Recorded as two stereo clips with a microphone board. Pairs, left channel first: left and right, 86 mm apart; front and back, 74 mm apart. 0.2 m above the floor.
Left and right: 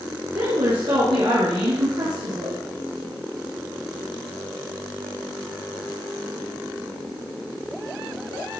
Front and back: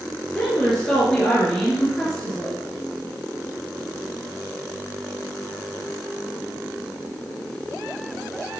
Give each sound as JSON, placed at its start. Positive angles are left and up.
{"t": 0.3, "sound": "a woman speaking", "azimuth_deg": -80, "distance_m": 3.0}